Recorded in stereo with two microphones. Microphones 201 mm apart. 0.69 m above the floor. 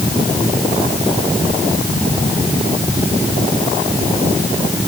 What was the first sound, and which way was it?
Only background noise.